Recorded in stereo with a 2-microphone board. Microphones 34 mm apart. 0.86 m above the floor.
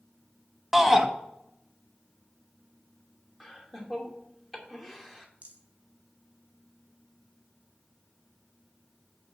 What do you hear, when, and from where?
0.7 s a shout: 10° right (ahead or behind), 1.2 m
3.4 s laughter: centre (ahead or behind), 2.5 m
5.4 s a rattle: 50° right (ahead or behind), 1.7 m